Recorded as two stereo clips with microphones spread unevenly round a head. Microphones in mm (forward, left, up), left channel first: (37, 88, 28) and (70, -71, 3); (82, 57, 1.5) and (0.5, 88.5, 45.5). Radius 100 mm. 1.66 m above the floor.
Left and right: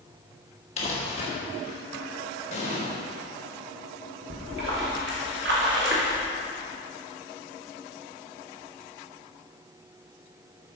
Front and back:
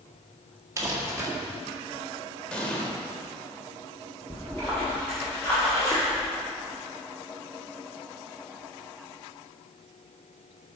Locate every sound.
0.8 s crumpling: 145° left, 1.6 m
2.5 s an explosion: 80° left, 1.9 m
4.3 s a splash: 120° right, 2.0 m